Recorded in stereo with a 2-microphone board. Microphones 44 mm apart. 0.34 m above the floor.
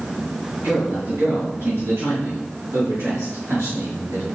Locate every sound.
0.6 s a man speaking: 55° right (ahead or behind), 4 m; by 4.3 s 75° right (ahead or behind), 4.5 m